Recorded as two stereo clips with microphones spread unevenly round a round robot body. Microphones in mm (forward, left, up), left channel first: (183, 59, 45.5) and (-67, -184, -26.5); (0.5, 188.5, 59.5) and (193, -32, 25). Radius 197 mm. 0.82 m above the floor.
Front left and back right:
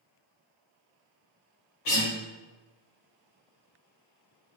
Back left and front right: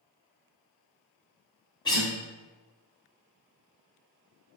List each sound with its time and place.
1.9 s a guitar: 55° left, 1.7 m